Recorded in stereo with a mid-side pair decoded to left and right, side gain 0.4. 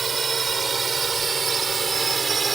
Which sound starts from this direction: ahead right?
A drone, at 0.0 s.